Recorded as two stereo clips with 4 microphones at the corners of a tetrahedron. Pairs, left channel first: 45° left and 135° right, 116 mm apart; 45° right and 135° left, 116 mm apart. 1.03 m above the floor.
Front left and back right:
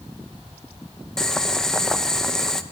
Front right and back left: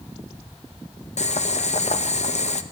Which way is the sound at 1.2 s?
40° right.